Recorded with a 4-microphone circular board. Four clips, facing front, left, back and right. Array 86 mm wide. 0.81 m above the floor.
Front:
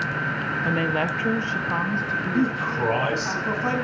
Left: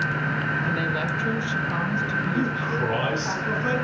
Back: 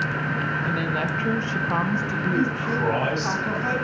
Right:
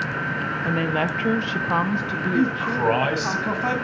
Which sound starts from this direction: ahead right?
A woman speaking, at 0.7 s.